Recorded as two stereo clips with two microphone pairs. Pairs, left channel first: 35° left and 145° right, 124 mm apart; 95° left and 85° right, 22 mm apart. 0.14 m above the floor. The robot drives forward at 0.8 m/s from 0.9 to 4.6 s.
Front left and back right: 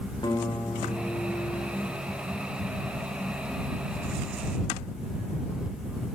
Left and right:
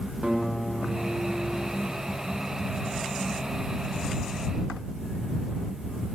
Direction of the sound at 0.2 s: 15° right.